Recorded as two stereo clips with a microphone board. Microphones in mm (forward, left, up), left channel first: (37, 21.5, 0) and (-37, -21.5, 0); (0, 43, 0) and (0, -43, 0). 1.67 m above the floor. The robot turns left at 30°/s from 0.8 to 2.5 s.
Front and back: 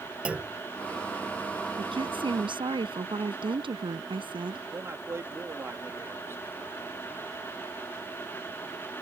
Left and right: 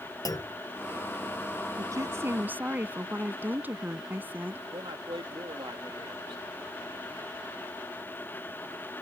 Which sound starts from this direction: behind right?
A woman speaking, at 1.8 s.